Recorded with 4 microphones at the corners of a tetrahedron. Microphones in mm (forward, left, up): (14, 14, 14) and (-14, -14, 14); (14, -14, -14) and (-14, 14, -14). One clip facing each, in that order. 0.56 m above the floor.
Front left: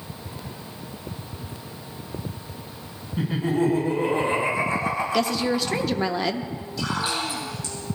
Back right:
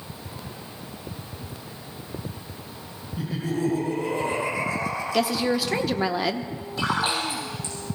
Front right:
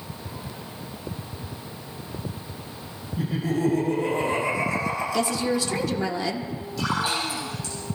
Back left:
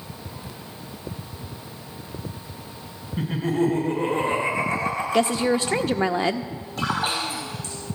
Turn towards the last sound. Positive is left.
turn(degrees=175)